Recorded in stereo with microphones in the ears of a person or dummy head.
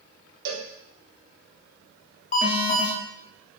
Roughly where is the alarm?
Left.